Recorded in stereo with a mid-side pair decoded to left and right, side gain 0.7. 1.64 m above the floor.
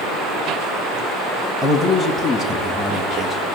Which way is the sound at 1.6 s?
5° right.